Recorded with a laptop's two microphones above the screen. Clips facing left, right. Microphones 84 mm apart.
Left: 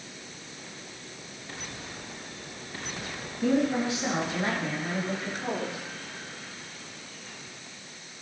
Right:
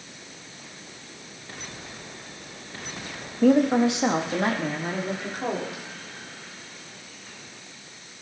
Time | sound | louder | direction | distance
3.4 | a woman speaking | right 7 dB | 60° right (ahead or behind) | 1.2 m